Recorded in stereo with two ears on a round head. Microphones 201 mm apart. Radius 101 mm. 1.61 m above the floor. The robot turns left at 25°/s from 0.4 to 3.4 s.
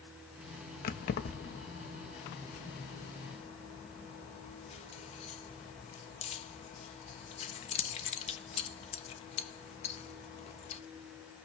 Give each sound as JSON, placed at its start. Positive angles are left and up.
{"t": 0.8, "sound": "keys jangling", "side_deg": 40, "distance_m": 1.1}